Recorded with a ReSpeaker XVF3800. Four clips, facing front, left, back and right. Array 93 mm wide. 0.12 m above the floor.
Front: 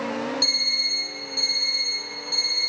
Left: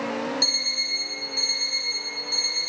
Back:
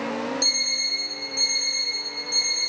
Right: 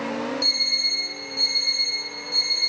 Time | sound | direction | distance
0.4 | an alarm clock | 100° left | 4 m